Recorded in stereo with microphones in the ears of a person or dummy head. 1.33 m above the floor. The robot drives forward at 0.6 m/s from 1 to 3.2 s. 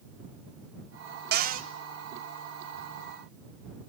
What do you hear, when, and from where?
1.3 s a cupboard door: 45° right (ahead or behind), 0.8 m; by 1.7 s 35° right (ahead or behind), 0.9 m